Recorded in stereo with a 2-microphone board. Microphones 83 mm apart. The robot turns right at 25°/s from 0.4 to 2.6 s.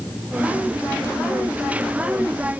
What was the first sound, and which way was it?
Only background noise.